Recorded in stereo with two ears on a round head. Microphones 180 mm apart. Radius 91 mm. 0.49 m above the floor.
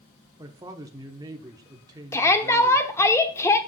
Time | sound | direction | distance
0.4 | a woman speaking | 20° right (ahead or behind) | 1.0 m
2.1 | a shout | 15° left (ahead or behind) | 1.0 m